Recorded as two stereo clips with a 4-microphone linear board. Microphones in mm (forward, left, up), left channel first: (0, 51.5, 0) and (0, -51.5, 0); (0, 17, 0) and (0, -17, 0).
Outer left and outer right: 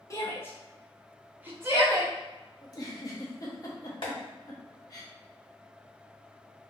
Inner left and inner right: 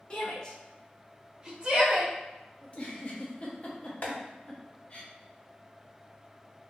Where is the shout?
30° left (ahead or behind), 0.8 m; by 2.1 s 35° right (ahead or behind), 0.8 m.